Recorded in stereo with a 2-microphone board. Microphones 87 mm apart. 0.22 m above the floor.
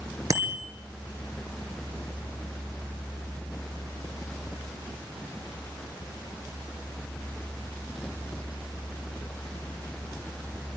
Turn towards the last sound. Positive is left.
turn(degrees=-40)  # may be behind; listen again after turning